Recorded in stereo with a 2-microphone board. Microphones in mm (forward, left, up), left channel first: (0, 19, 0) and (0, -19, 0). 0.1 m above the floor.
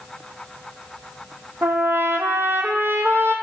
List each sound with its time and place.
1.6 s a trumpet: 75° right (ahead or behind), 0.9 m